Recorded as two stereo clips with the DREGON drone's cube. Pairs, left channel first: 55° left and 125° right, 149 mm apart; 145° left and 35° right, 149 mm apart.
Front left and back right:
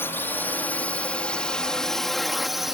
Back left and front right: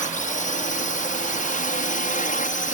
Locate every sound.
0.0 s a drone: 130° left; by 2.7 s 150° left